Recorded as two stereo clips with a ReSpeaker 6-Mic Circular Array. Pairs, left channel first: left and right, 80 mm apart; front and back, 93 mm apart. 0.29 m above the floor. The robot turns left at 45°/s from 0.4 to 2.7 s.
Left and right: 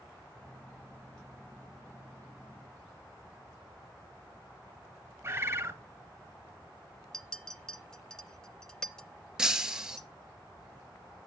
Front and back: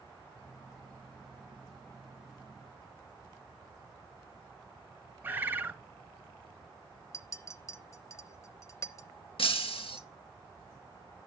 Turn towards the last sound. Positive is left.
turn(degrees=-10)